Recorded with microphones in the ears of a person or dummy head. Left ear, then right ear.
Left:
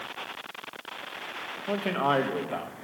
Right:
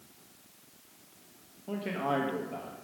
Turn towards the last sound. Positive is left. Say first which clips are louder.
# left 6 dB
turn(degrees=40)  # may be behind; listen again after turning